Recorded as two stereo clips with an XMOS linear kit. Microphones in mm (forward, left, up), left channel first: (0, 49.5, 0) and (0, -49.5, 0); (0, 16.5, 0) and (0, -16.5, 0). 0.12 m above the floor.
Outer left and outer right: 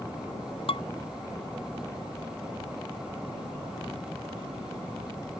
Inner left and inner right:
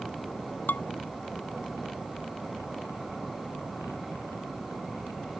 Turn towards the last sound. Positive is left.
turn(degrees=70)  # may be behind; listen again after turning